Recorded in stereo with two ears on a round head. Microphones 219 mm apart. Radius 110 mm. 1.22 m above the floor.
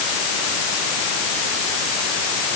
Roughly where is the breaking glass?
No breaking glass in this recording.